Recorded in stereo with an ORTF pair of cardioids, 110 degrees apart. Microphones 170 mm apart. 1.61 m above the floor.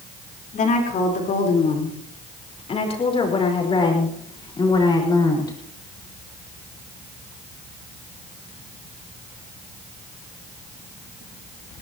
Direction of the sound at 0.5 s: 50° left.